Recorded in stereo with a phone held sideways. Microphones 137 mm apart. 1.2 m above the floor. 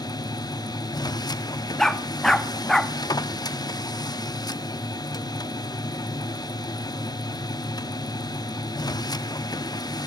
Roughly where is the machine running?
Left.